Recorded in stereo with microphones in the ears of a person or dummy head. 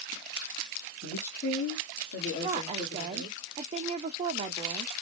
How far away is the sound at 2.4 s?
About 0.6 m.